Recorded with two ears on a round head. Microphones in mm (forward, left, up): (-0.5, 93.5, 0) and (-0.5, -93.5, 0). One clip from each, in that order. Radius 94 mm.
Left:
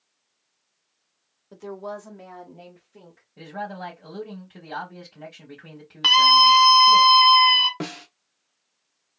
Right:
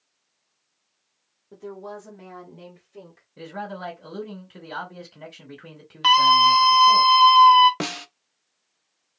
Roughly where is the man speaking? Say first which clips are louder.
Even; right.